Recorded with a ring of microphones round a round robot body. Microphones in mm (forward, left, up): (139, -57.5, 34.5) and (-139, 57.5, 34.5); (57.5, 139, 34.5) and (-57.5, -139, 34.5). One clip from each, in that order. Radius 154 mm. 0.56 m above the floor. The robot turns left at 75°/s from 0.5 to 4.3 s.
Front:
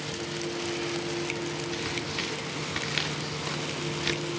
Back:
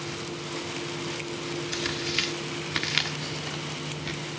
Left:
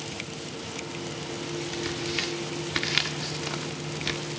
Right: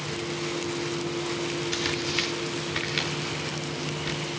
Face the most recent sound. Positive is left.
turn(degrees=5)